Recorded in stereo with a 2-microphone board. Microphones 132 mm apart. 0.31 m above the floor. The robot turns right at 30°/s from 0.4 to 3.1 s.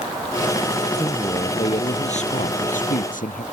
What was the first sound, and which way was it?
A man speaking, 25° left.